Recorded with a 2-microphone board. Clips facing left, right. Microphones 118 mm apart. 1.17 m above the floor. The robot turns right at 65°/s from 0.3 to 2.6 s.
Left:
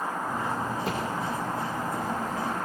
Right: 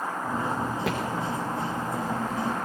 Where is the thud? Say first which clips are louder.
Right 3 dB; 75° right (ahead or behind), 6.5 m; by 1.0 s 65° right (ahead or behind), 6.5 m.